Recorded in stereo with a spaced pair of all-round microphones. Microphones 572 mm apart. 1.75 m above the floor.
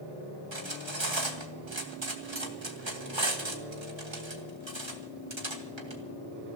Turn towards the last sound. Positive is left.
turn(degrees=-50)  # may be behind; listen again after turning